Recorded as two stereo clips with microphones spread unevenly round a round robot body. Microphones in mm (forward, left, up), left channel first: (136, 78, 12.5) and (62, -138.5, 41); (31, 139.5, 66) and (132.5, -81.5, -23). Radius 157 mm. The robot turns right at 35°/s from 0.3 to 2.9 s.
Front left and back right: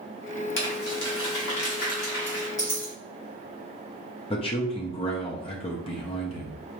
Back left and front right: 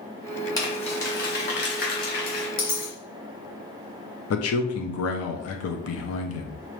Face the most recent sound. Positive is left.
turn(degrees=110)